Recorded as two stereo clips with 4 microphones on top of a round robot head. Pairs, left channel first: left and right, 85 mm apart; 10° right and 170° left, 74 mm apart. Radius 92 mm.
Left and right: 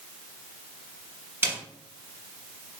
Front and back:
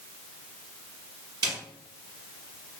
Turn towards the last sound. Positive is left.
turn(degrees=-155)